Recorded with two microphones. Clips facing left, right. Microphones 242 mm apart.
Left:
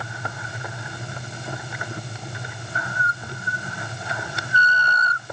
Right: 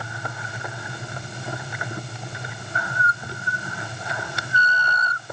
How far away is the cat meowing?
No cat meowing in this recording.